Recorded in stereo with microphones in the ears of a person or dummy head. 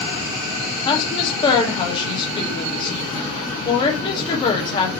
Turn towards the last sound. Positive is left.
turn(degrees=30)  # may be behind; listen again after turning